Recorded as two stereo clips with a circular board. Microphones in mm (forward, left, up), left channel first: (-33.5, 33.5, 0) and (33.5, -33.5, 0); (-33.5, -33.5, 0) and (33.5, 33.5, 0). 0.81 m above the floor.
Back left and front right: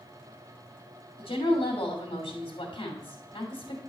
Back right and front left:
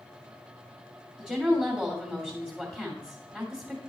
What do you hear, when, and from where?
1.2 s a woman speaking: 140° left, 2.5 m